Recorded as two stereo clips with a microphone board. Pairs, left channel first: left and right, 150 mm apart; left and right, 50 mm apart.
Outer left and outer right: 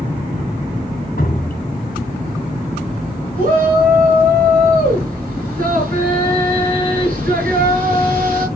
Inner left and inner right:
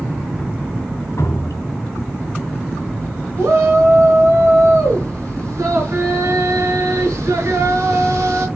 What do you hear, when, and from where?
1.2 s dripping: 65° left (ahead or behind), 2 m
3.4 s a shout: 60° right (ahead or behind), 5.5 m